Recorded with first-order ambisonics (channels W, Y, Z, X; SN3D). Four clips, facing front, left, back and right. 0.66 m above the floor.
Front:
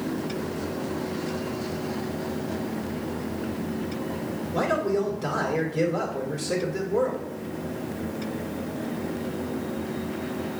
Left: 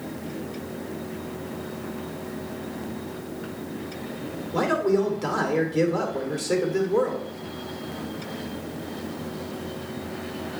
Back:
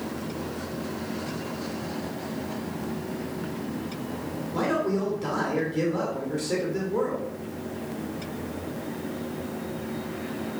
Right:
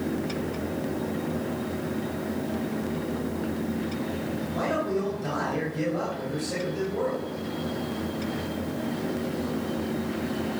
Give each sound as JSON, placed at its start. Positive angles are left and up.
{"t": 4.5, "sound": "a man speaking", "azimuth_deg": 90, "distance_m": 2.5}